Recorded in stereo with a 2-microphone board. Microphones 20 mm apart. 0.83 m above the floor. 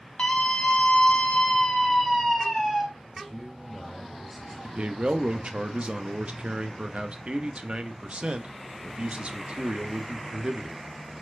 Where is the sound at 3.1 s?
20° right (ahead or behind), 2.5 m.